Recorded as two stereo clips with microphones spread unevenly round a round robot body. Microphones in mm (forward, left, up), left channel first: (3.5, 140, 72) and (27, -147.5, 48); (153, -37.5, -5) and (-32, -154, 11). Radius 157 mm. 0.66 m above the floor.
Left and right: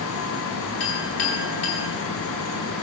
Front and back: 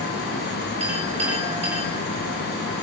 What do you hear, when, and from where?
0.8 s a clink: 140° left, 9.5 m